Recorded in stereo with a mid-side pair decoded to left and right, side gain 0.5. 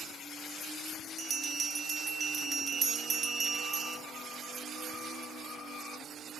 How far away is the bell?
About 1.7 m.